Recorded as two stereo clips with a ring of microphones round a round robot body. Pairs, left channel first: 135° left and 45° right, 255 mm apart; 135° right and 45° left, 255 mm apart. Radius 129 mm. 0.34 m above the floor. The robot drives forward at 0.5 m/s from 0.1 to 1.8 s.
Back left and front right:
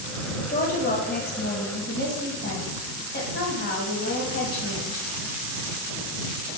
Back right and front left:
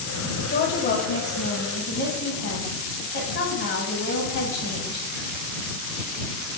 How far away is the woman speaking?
About 1.3 m.